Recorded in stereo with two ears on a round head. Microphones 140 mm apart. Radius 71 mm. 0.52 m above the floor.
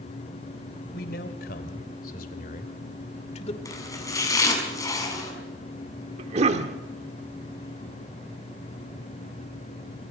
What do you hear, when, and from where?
0.9 s a man speaking: 65° left (ahead or behind), 3 m; by 3.5 s 40° left (ahead or behind), 2 m
3.6 s chopping: 20° left (ahead or behind), 5.5 m
6.2 s a cough: 40° right (ahead or behind), 1.3 m